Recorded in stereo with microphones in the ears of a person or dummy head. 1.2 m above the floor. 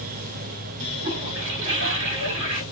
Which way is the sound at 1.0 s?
60° right (ahead or behind).